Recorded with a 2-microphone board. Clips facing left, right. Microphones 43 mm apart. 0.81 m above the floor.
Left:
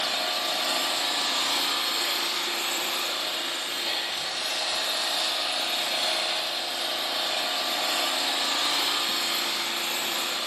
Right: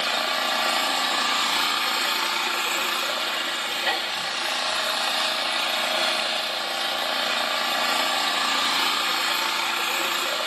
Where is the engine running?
75° right (ahead or behind), 0.8 m.